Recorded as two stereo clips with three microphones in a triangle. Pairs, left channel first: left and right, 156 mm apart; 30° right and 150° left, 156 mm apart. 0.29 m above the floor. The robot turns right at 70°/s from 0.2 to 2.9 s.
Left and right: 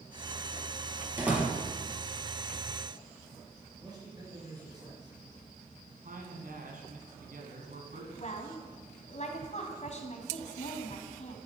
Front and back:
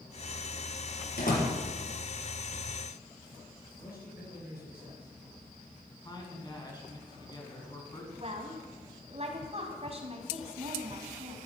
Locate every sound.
1.2 s a door slam: 15° right, 4.5 m; by 1.5 s 10° left, 4.5 m
3.8 s a man speaking: 25° right, 4 m
6.0 s a man speaking: 90° right, 3 m
8.2 s a woman speaking: 115° left, 1.9 m